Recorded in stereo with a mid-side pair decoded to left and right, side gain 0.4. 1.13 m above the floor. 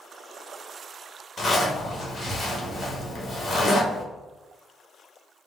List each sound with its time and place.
1.4 s a zipper: 40° left, 1.2 m